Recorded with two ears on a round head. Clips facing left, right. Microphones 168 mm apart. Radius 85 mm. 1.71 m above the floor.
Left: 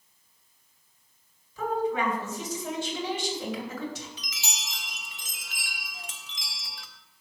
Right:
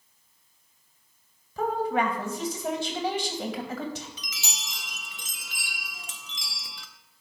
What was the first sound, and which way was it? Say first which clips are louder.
A woman speaking: right 1 dB; 50° right (ahead or behind).